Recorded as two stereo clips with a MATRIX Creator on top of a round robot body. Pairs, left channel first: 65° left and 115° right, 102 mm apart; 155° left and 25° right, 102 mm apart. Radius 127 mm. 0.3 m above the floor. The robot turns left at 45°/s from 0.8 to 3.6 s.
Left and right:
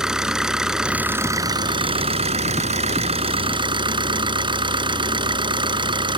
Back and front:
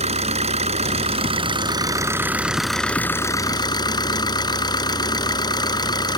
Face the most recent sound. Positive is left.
turn(degrees=-155)